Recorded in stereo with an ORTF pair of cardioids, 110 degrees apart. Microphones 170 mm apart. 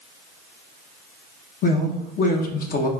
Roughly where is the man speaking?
Ahead left.